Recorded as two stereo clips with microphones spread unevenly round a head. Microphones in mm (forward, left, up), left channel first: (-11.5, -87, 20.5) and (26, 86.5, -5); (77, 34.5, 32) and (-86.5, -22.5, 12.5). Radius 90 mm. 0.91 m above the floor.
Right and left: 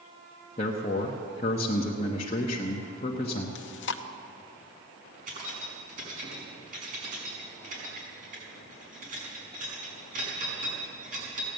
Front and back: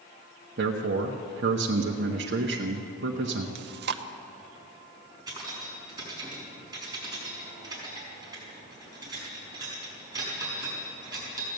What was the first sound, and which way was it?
A man speaking, 160° right.